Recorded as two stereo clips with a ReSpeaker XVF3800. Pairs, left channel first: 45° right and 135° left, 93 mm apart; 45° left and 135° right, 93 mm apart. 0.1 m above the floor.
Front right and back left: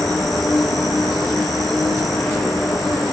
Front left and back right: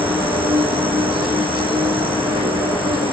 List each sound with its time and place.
0.0 s an insect: 135° right, 1.4 m